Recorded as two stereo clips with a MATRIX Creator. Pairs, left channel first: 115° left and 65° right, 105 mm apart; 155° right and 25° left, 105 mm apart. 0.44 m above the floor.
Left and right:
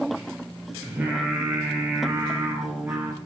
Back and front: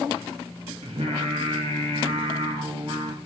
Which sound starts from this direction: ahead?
Singing, at 0.8 s.